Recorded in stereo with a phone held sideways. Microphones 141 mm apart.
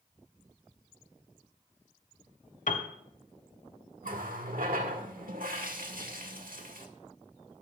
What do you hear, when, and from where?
2.7 s a piano: 65° left (ahead or behind), 1.3 m
4.0 s a running tap: 85° right, 1.8 m